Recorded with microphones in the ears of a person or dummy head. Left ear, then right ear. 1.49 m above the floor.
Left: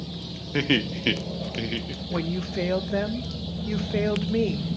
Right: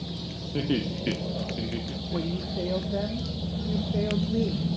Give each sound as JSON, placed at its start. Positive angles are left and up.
{"t": 0.5, "sound": "laughter", "side_deg": 60, "distance_m": 1.5}
{"t": 2.1, "sound": "a woman speaking", "side_deg": 70, "distance_m": 1.1}